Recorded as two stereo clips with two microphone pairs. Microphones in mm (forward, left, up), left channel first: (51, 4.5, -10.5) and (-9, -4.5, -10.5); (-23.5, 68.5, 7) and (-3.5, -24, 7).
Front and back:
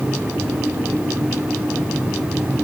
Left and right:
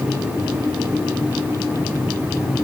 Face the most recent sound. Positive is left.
No sound to turn to.